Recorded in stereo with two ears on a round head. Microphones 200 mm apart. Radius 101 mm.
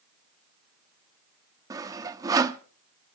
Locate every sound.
1.7 s sawing: 15° right (ahead or behind), 0.7 m